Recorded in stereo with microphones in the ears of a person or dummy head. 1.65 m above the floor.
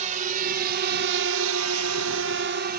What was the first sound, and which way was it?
A drone, 40° right (ahead or behind).